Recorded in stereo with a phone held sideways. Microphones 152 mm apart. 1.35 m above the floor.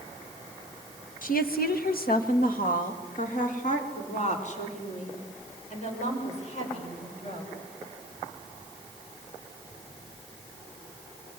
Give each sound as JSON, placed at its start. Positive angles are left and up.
{"t": 1.2, "sound": "a woman speaking", "side_deg": 65, "distance_m": 1.5}